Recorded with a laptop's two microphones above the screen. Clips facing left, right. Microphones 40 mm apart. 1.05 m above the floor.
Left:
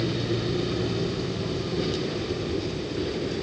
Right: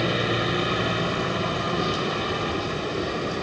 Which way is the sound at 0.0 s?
60° right (ahead or behind).